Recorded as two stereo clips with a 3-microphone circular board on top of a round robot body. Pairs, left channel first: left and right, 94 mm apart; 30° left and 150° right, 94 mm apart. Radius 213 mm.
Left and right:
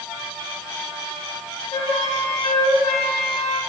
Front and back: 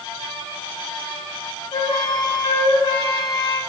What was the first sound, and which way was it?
A flute, 80° left.